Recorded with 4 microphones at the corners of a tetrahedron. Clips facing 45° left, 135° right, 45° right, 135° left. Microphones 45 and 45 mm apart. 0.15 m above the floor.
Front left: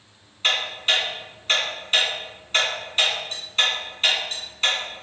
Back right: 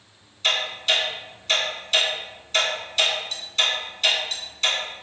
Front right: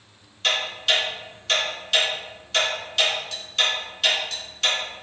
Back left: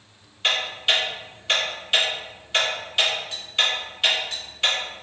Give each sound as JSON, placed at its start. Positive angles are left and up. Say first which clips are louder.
{"t": 0.4, "sound": "ticking", "louder": "front left 1 dB, even", "azimuth_deg": 70, "distance_m": 1.5}